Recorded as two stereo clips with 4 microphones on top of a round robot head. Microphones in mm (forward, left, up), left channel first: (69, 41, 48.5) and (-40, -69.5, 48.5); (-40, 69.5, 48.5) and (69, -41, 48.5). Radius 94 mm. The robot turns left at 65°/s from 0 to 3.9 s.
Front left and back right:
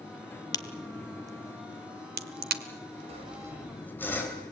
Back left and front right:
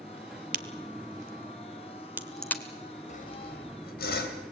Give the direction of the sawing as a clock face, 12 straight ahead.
6 o'clock.